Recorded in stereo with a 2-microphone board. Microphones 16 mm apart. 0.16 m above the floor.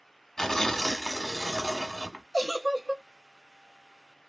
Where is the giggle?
25° right (ahead or behind), 0.7 m.